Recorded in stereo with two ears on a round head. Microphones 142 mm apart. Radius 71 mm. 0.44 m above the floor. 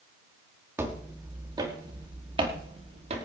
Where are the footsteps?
15° right (ahead or behind), 3 m; by 3.2 s 45° right (ahead or behind), 3.5 m.